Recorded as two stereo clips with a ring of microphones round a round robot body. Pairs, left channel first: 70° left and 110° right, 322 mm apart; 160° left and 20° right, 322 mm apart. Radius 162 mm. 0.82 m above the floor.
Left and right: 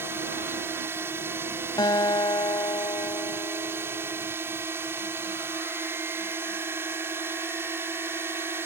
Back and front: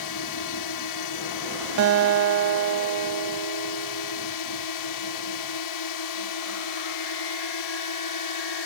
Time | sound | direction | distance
0.0 | a drone | 165° left | ?
1.8 | a guitar | 5° right | ?